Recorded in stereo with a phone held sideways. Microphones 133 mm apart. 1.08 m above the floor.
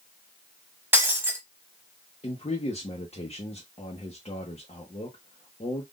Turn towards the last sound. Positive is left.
turn(degrees=50)  # may be behind; listen again after turning